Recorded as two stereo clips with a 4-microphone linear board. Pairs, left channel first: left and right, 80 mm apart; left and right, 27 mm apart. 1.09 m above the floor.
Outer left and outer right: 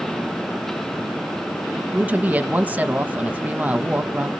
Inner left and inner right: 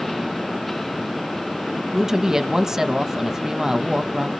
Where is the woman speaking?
20° right (ahead or behind), 1.1 m.